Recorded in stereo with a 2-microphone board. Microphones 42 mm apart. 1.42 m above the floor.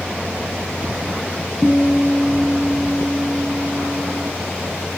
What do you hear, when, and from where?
1.6 s a guitar: 25° right (ahead or behind), 5 m